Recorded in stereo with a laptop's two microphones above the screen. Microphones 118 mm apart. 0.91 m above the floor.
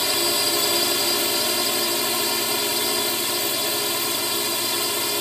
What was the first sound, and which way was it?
A drone, centre (ahead or behind).